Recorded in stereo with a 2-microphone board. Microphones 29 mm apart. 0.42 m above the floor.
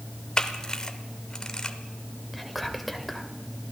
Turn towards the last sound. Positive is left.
turn(degrees=-5)  # may be behind; listen again after turning